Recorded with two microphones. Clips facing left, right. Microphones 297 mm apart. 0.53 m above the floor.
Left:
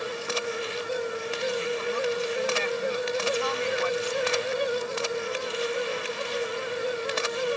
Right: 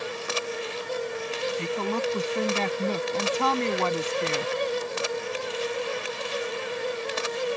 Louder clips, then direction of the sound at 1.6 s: Even; 70° right (ahead or behind).